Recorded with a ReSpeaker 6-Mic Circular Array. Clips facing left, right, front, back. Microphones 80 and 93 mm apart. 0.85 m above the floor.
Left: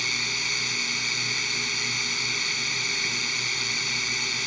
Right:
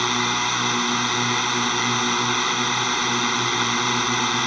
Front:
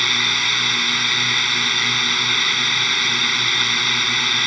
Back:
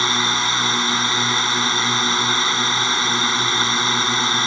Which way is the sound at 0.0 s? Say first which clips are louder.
Right 11 dB, back 4 dB; 120° right.